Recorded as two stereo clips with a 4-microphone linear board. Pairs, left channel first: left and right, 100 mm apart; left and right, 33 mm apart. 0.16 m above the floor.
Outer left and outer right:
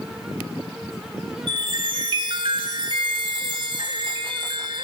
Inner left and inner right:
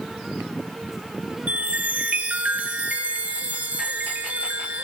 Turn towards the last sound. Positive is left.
turn(degrees=-55)  # may be behind; listen again after turning